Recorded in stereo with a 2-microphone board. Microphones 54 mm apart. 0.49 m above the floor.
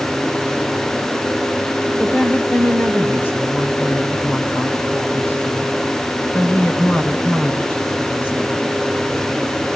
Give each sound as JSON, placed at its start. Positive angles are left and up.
{"t": 2.0, "sound": "a woman speaking", "side_deg": 40, "distance_m": 2.5}